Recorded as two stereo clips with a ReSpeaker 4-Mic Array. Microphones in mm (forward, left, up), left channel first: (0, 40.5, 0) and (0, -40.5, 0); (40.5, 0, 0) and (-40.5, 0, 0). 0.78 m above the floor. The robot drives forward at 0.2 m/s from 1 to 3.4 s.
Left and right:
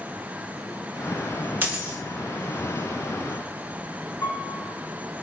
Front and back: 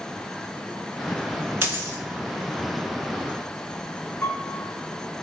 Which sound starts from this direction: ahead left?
A piano, at 4.2 s.